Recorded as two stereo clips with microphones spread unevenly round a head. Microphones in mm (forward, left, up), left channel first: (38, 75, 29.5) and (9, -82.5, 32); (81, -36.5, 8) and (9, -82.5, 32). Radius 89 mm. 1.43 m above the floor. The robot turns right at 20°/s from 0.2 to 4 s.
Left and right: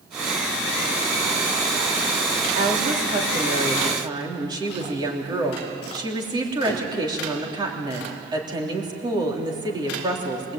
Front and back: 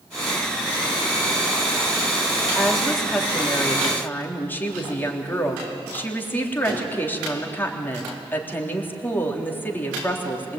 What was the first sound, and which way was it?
A woman speaking, 65° right.